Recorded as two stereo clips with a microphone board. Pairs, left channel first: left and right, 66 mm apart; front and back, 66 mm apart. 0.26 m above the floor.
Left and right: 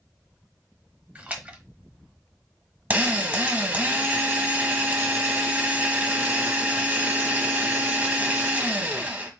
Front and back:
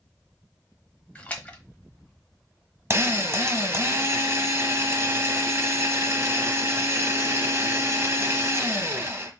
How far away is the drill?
About 1.0 m.